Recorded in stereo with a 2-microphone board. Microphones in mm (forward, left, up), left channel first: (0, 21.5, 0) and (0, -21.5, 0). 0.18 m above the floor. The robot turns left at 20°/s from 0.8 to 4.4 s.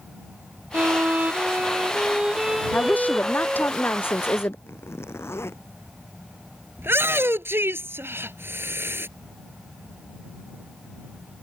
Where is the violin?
135° right; by 3.7 s 170° left.